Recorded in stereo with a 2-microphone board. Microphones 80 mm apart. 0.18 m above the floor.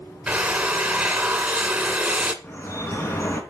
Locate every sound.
0.3 s a drill: 10° right (ahead or behind), 1.6 m
2.4 s dripping: 30° left (ahead or behind), 2.5 m